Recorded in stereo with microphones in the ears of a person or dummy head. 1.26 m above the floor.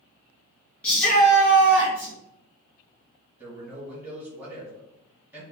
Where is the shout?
10° left (ahead or behind), 1.8 m; by 2.1 s 15° right (ahead or behind), 1.9 m.